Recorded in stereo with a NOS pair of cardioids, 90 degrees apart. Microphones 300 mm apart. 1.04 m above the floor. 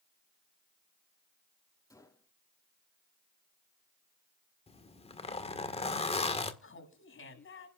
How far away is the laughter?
About 8 m.